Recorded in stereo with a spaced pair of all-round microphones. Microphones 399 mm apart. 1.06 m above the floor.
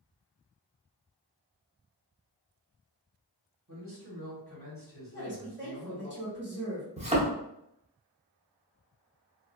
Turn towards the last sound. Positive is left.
turn(degrees=-15)  # may be behind; listen again after turning